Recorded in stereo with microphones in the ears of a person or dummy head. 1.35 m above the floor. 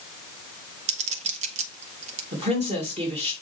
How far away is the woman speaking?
About 2.0 m.